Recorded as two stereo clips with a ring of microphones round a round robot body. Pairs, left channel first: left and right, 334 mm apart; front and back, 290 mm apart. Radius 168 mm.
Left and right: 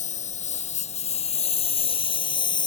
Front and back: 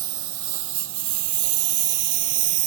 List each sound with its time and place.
0.0 s a lawn mower: 160° left; by 2.7 s 165° left